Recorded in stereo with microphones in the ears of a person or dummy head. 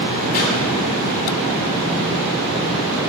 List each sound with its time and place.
0.3 s a pop: 50° left (ahead or behind), 3.5 m